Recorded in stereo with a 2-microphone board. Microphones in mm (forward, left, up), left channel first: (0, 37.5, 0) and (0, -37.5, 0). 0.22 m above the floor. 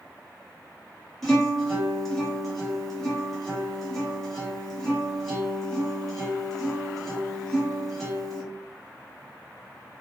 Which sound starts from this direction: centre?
A guitar, at 1.2 s.